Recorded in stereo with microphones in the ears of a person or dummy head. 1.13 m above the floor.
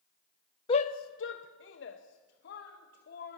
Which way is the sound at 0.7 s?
25° left (ahead or behind).